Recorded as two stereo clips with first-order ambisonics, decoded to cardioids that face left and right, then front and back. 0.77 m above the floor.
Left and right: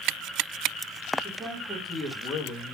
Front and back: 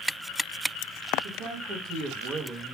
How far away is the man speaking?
About 1.5 m.